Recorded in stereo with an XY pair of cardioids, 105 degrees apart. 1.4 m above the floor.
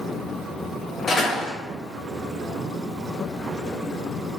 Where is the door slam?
40° left, 1.2 m.